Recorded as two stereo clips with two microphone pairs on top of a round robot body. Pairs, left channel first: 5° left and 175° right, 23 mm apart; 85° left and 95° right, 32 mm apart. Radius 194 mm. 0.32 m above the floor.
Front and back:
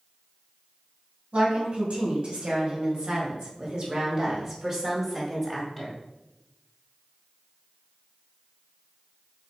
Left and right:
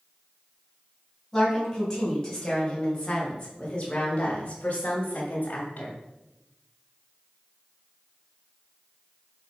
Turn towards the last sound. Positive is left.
turn(degrees=100)